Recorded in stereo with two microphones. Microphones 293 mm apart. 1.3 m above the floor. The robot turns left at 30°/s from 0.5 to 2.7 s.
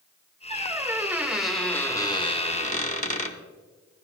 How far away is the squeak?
About 1.0 m.